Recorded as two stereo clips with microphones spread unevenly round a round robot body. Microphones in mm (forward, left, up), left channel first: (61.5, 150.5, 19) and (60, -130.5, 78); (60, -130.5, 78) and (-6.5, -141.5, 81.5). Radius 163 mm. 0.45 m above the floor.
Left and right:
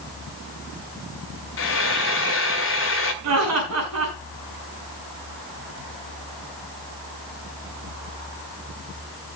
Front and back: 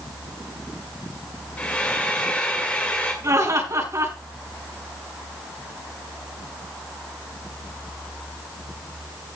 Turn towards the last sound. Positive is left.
turn(degrees=-135)